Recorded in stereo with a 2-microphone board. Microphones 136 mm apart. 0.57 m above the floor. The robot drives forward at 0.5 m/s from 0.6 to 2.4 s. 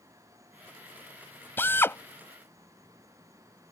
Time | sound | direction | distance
1.6 | a drill | 15° left (ahead or behind) | ?